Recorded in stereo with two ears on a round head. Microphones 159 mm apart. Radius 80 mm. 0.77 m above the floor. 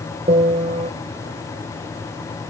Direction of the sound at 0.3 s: 35° right (ahead or behind).